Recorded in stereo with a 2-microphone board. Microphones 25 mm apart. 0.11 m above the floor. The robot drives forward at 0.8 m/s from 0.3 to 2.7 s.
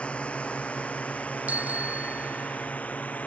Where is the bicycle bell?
75° right (ahead or behind); by 2.7 s 70° right (ahead or behind).